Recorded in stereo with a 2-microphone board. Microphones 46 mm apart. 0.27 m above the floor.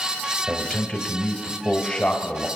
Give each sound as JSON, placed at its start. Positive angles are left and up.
{"t": 0.5, "sound": "a man speaking", "side_deg": 5, "distance_m": 1.4}